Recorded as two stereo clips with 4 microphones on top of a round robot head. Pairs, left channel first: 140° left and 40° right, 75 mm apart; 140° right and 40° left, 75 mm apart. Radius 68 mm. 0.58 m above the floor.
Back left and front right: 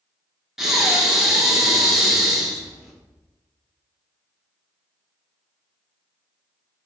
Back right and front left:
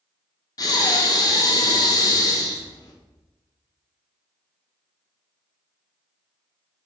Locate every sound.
0.6 s breathing: 125° right, 1.7 m